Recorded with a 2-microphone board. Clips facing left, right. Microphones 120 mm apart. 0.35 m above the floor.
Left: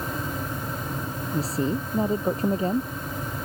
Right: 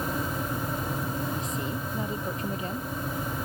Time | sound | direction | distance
1.3 | a woman speaking | 40° left (ahead or behind) | ?